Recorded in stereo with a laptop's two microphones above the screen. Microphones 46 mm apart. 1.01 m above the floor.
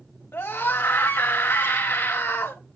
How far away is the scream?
About 2.5 m.